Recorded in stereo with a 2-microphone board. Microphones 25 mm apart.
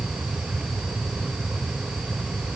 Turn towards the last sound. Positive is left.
No sound to turn to.